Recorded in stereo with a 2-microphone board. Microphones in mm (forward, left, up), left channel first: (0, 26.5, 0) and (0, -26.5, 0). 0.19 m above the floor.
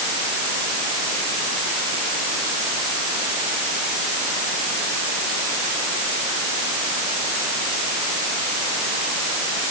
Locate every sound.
Only background noise.